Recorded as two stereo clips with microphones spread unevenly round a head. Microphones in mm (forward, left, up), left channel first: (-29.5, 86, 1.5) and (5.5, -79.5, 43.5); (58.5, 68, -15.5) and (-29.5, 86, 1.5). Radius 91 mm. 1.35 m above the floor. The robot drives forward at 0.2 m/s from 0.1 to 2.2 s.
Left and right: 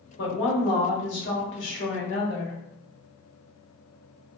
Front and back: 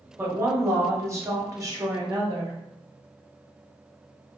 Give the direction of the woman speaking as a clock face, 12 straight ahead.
9 o'clock.